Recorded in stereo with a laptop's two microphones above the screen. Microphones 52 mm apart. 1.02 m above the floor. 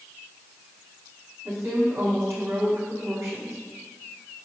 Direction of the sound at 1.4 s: 55° right (ahead or behind).